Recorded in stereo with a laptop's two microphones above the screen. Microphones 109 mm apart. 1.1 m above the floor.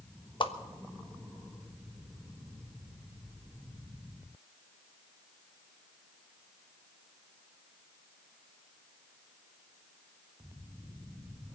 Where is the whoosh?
50° left (ahead or behind), 1.2 m.